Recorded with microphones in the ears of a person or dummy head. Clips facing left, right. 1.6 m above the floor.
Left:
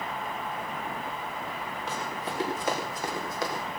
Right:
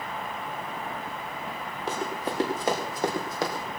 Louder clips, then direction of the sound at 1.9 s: Right 6 dB; 40° right (ahead or behind).